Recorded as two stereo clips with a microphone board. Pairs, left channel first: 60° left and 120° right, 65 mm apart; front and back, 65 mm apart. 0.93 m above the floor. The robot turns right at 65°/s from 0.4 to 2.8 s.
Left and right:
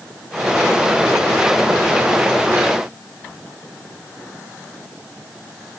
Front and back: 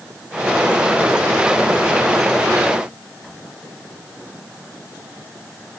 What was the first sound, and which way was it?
Only background noise.